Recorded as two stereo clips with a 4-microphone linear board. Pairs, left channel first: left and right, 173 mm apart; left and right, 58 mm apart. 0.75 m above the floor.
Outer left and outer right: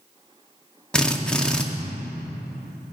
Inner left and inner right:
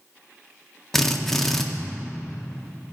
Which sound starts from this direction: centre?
A drill, at 0.9 s.